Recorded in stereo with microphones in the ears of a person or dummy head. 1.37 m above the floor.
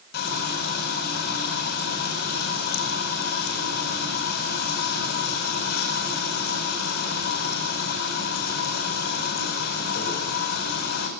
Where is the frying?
70° left (ahead or behind), 9.5 m.